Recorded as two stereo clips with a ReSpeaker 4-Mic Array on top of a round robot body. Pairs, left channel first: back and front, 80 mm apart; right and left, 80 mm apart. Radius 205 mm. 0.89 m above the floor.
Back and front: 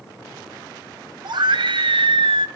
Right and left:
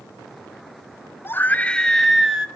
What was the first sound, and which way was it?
A scream, 30° right.